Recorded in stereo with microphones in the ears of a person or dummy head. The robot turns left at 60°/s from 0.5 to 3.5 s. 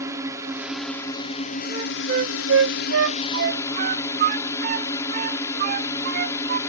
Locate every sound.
0.0 s a drone: 160° right; by 6.7 s 20° left
1.7 s a flute: 20° right (ahead or behind); by 6.6 s 50° right (ahead or behind)